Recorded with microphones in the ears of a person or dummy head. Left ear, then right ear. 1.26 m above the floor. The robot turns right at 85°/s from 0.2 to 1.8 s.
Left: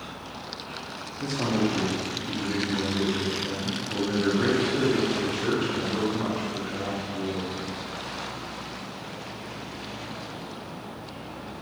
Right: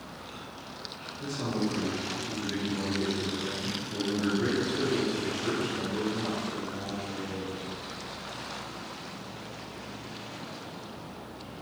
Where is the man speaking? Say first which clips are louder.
Left 6 dB; 110° left, 0.6 m; by 7.6 s 160° left, 0.6 m.